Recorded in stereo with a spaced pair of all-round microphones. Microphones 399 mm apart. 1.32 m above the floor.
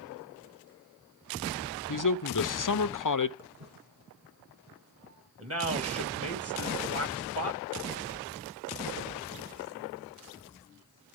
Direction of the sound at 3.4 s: 60° right (ahead or behind).